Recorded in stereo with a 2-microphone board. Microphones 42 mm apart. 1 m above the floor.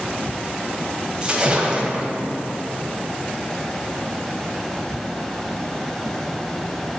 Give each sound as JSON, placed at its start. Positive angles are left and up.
{"t": 1.2, "sound": "a splash", "side_deg": -25, "distance_m": 1.8}